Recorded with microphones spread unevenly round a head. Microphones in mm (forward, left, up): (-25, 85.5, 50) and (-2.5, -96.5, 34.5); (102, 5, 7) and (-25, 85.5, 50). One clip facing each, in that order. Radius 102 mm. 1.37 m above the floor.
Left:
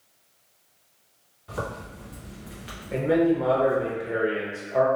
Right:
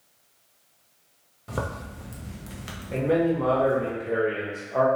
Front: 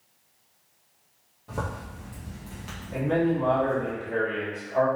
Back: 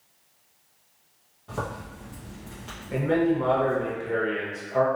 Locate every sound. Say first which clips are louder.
1.5 s a zipper: right 1 dB, back 1 dB; 105° right, 0.7 m
2.9 s a man speaking: left 2 dB, back 2 dB; 175° right, 0.9 m